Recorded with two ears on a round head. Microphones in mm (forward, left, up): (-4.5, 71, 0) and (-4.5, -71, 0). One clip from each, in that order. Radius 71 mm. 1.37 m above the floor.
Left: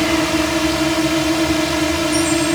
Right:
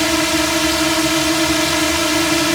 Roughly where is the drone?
Right.